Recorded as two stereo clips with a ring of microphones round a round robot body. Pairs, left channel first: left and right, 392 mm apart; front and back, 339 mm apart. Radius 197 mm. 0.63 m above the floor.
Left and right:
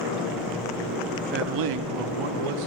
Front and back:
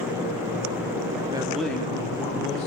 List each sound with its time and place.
1.3 s a man speaking: 125° right, 0.6 m; by 2.7 s 75° right, 1.8 m